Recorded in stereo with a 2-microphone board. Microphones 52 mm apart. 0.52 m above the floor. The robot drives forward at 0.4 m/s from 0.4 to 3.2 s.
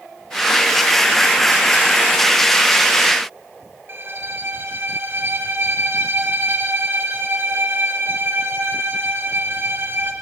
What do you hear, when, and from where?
3.9 s a violin: 45° right (ahead or behind), 1.6 m